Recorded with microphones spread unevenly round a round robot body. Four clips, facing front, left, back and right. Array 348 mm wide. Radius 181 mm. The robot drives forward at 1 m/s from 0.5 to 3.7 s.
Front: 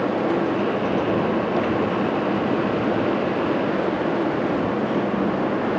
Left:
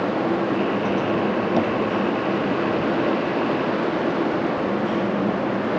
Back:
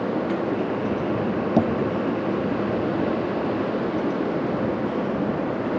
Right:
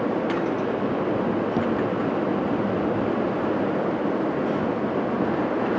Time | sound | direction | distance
1.6 | tapping | 175° left | ?